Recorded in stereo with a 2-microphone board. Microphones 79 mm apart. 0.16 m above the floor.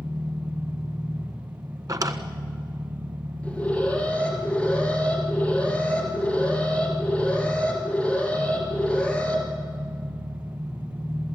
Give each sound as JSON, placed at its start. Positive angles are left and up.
{"t": 0.0, "sound": "an engine running", "side_deg": -70, "distance_m": 6.0}
{"t": 1.9, "sound": "a drawer", "side_deg": -45, "distance_m": 1.2}
{"t": 3.4, "sound": "an alarm", "side_deg": 15, "distance_m": 4.5}